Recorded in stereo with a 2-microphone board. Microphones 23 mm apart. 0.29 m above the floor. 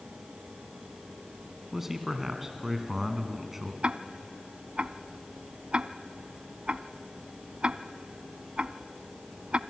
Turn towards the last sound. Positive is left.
turn(degrees=-55)  # may be behind; listen again after turning